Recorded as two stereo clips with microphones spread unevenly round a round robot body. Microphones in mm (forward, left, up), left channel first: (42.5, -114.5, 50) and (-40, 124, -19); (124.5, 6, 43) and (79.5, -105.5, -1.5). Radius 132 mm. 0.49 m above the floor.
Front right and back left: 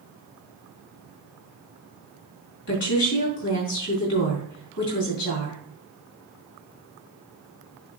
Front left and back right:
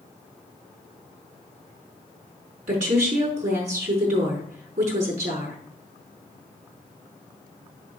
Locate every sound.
2.7 s a woman speaking: 120° right, 5.5 m